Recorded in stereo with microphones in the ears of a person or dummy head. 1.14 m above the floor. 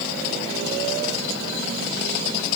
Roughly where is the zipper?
No zipper in this recording.